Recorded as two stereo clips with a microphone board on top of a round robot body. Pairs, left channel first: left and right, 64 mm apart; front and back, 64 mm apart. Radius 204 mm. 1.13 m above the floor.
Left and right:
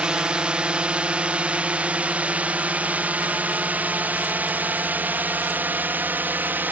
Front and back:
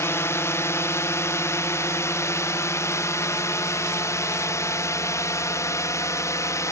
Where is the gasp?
I don't hear a gasp.